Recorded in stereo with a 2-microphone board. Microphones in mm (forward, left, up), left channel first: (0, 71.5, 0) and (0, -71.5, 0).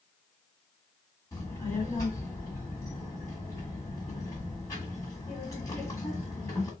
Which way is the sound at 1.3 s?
20° left (ahead or behind).